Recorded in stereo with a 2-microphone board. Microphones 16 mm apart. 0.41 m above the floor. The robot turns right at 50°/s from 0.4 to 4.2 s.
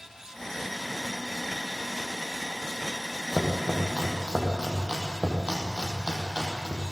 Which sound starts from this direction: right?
Chopping, at 3.3 s.